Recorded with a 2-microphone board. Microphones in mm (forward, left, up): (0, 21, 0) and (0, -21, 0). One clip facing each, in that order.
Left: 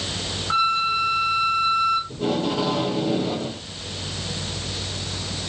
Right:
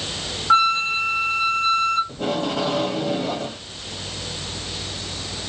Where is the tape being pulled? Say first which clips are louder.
Even; 50° right (ahead or behind), 1.6 m.